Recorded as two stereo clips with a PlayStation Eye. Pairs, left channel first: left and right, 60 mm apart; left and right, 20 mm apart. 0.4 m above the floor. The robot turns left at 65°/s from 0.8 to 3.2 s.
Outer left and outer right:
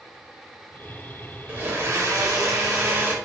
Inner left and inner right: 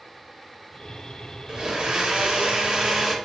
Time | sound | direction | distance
1.5 | a blender | 35° right | 0.6 m